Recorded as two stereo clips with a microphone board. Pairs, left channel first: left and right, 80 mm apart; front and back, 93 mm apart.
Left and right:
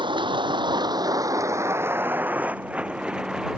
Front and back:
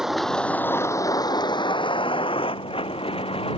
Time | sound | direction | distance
0.0 | a vehicle | 95° right | ?